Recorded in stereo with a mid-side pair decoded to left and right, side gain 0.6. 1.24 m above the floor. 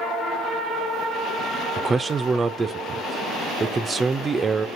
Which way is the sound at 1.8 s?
25° right.